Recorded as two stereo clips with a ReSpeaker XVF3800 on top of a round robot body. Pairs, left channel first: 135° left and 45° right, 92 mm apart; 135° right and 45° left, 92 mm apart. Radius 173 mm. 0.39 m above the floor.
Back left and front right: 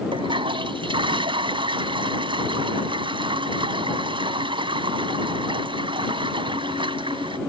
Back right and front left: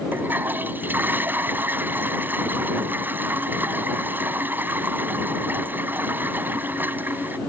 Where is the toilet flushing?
25° right.